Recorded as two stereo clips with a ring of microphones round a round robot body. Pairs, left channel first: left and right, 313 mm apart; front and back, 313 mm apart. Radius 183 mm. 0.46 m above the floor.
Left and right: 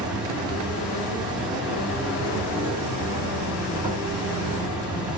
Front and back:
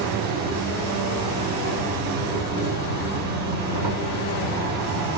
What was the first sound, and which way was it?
An insect, 155° right.